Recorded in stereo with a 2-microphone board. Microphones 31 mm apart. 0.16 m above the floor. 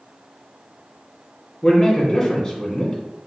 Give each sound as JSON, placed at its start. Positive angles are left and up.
{"t": 1.6, "sound": "a man speaking", "side_deg": 30, "distance_m": 1.4}